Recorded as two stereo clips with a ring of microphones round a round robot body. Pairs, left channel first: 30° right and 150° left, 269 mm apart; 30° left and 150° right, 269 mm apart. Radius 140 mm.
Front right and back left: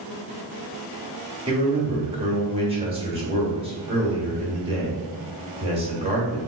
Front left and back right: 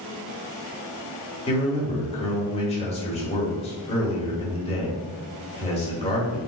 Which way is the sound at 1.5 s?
90° left.